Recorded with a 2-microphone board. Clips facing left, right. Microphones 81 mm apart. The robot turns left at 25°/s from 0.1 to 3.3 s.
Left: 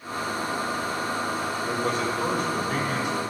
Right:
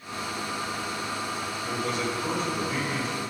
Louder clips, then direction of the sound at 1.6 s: Left 2 dB; 150° left.